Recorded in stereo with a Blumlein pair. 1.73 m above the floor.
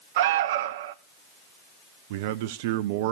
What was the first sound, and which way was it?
An alarm, 55° right.